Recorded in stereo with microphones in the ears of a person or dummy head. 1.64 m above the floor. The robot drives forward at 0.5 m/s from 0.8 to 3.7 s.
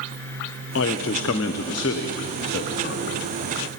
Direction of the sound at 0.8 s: 75° left (ahead or behind).